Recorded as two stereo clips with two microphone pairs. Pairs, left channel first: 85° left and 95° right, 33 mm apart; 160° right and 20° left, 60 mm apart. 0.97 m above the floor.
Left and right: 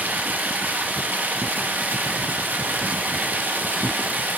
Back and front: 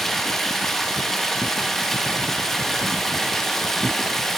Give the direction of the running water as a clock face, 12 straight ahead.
2 o'clock.